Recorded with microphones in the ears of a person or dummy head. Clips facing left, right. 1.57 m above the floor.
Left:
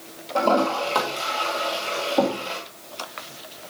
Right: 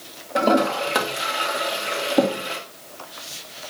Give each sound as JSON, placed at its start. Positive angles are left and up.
{"t": 0.3, "sound": "a toilet flushing", "side_deg": -15, "distance_m": 1.7}